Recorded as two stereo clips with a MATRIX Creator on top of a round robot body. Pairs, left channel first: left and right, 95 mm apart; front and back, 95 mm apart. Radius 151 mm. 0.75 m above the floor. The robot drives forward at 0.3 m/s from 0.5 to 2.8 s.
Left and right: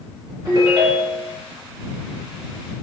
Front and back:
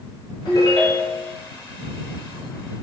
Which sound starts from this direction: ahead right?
A ringtone, at 0.5 s.